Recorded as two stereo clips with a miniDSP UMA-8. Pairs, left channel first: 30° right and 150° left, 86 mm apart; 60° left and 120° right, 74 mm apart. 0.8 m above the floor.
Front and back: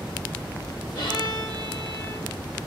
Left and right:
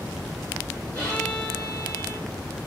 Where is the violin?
5° right, 1.7 m.